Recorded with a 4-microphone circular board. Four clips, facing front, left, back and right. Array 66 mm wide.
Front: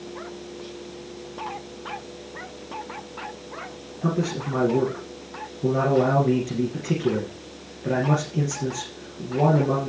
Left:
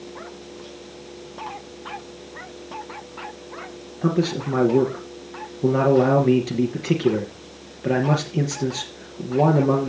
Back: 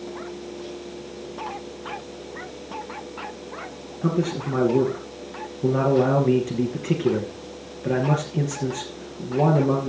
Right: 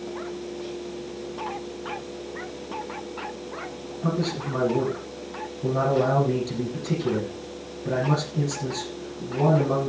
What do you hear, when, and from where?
4.0 s a man speaking: 100° left, 3 m